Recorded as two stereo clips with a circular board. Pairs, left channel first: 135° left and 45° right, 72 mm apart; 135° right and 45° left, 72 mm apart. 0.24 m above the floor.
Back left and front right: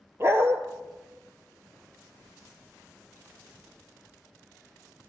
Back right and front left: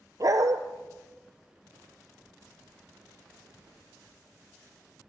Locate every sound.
0.2 s a dog barking: 10° left, 1.3 m